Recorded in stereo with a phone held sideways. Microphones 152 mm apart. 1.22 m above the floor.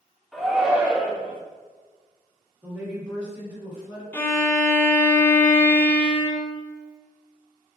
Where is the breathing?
No breathing in this recording.